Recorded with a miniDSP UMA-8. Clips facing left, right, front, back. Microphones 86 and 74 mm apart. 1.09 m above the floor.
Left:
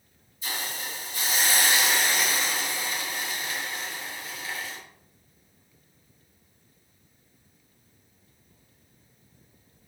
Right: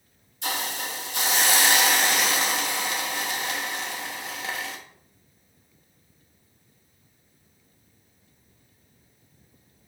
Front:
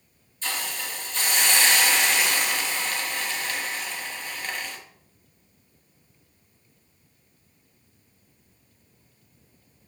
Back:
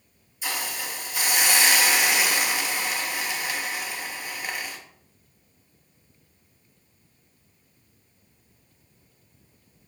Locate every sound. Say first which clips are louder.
0.4 s a hiss: right 5 dB, back 1 dB; 100° right, 1.3 m